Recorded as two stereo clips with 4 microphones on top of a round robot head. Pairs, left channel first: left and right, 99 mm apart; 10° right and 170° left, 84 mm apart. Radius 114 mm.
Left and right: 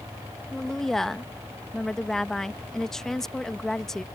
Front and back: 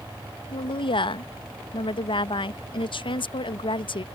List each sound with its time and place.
0.5 s a woman speaking: 5° left